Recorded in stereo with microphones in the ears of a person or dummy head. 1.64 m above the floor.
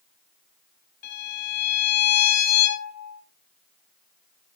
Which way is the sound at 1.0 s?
65° left (ahead or behind).